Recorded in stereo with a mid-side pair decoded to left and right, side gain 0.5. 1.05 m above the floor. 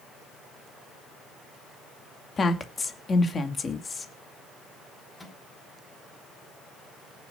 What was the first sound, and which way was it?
A woman speaking, 35° left.